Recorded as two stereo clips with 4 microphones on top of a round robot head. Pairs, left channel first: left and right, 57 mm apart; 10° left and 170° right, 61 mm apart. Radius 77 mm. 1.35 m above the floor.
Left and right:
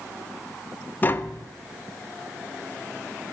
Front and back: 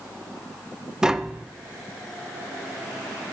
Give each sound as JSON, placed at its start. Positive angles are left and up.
{"t": 1.0, "sound": "tapping", "azimuth_deg": 115, "distance_m": 0.5}